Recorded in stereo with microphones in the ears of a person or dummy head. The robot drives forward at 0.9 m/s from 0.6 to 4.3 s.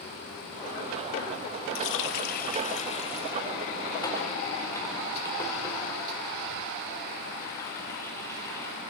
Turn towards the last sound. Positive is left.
turn(degrees=20)  # may be behind; listen again after turning